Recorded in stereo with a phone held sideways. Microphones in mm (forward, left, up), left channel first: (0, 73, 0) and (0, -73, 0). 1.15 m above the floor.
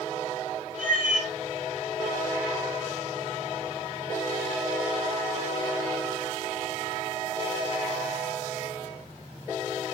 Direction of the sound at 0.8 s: 75° right (ahead or behind).